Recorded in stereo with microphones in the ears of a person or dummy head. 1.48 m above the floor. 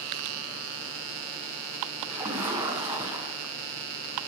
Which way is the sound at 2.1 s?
Centre (ahead or behind).